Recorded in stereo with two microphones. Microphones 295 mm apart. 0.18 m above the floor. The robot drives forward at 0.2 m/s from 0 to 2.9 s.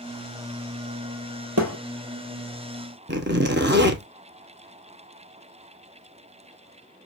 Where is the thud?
60° right (ahead or behind), 1.6 m.